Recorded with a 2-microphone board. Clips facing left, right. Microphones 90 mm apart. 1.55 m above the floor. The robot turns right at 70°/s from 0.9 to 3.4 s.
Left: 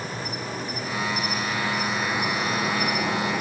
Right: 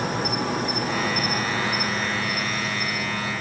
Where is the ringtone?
No ringtone in this recording.